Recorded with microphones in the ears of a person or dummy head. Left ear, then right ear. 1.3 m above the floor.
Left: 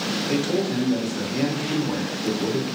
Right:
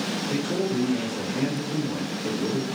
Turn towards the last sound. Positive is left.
turn(degrees=75)  # may be behind; listen again after turning